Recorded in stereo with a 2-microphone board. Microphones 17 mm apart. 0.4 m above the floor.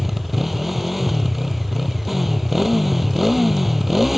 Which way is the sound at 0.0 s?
10° right (ahead or behind).